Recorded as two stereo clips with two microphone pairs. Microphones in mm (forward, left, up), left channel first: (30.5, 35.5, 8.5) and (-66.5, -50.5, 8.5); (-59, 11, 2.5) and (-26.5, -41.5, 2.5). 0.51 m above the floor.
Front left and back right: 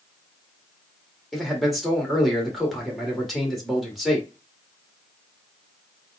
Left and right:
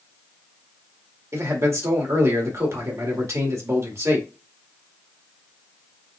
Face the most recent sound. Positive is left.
turn(degrees=-50)